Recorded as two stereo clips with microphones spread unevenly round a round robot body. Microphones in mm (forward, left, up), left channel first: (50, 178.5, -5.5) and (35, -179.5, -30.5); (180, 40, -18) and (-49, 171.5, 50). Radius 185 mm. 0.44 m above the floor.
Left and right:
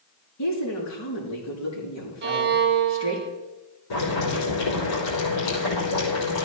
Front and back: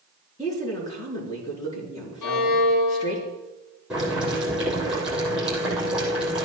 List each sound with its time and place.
0.4 s a woman speaking: 45° left, 5 m
2.2 s a violin: 30° right, 1.5 m
3.9 s boiling: 65° left, 5.5 m